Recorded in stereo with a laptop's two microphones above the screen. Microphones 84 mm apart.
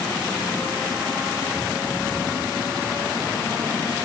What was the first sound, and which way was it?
Only background noise.